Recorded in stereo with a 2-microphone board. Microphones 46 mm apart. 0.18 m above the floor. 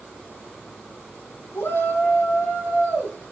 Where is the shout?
75° left (ahead or behind), 6.5 m.